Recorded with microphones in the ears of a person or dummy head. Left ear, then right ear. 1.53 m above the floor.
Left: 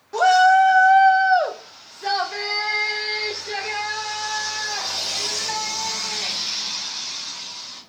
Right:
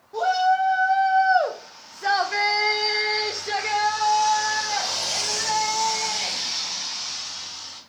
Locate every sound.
0.1 s a shout: 75° left (ahead or behind), 0.8 m; by 7.8 s 55° right (ahead or behind), 4.5 m